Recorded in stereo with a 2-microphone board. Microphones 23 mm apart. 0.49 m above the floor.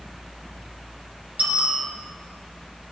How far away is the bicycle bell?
About 5 m.